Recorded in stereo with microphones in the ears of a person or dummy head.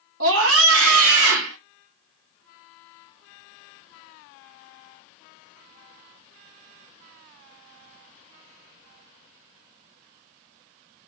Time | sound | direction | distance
0.2 | a scream | 75° right (ahead or behind) | 3 m